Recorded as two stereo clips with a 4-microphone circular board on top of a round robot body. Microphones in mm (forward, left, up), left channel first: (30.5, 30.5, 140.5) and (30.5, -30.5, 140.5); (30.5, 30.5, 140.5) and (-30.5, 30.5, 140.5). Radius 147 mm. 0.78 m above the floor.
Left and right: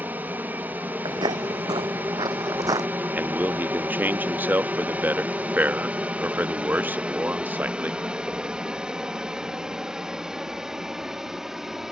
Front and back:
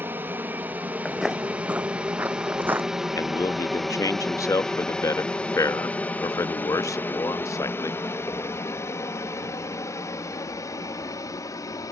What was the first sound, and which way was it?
An aircraft, 140° right.